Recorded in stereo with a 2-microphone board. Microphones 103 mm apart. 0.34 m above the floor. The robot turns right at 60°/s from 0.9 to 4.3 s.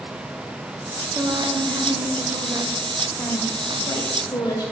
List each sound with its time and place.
1.1 s a woman speaking: 100° right, 1.6 m; by 4.7 s 95° left, 1.6 m